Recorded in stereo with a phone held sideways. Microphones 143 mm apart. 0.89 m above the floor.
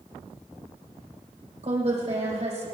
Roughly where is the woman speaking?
Right.